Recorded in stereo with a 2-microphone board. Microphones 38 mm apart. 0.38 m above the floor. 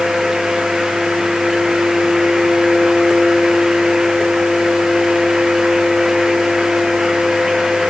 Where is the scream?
I don't hear a scream.